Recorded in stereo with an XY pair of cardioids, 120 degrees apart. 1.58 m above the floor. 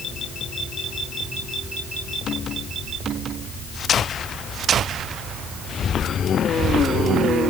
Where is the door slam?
I don't hear a door slam.